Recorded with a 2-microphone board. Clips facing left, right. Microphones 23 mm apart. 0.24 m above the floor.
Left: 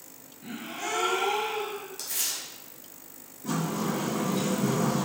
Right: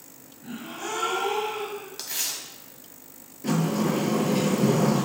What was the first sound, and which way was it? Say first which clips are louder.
A gasp: even; 70° left (ahead or behind).